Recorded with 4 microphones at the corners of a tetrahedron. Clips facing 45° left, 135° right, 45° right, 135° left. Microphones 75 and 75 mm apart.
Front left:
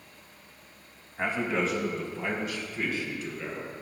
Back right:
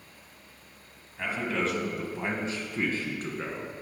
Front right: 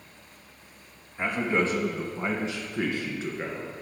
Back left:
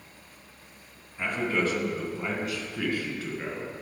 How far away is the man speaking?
About 1.3 m.